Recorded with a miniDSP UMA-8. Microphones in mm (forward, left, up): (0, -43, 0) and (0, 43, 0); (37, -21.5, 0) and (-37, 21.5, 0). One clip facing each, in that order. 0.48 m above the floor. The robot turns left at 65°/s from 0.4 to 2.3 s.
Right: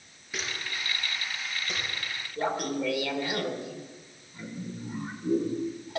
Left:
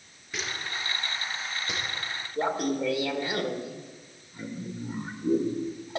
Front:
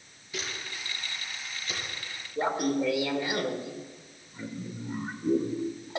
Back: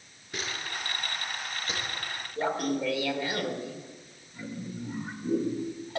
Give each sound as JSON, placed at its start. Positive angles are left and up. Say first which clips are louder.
{"t": 0.3, "sound": "a camera shutter", "louder": "left 1 dB, back 2 dB", "azimuth_deg": -175, "distance_m": 4.5}
{"t": 2.4, "sound": "laughter", "louder": "left 2 dB, front 2 dB", "azimuth_deg": 35, "distance_m": 1.6}